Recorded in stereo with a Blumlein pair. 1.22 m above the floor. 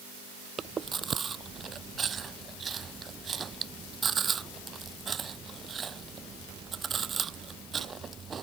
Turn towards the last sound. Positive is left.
turn(degrees=-20)